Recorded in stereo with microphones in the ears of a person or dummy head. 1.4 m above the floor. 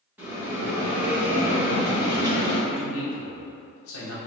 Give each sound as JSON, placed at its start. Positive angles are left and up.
{"t": 0.2, "sound": "a bell", "side_deg": -10, "distance_m": 1.7}
{"t": 2.7, "sound": "a man speaking", "side_deg": 80, "distance_m": 1.1}